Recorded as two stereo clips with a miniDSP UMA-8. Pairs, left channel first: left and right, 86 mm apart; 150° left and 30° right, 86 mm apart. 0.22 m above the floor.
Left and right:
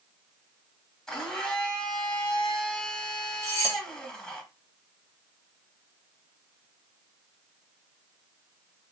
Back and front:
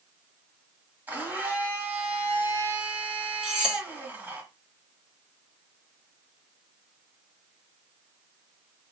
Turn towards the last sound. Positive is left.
turn(degrees=-105)